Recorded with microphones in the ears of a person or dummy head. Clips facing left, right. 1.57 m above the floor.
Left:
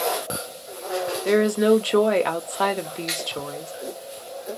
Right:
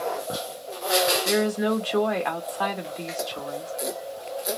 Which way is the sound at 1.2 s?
40° left (ahead or behind).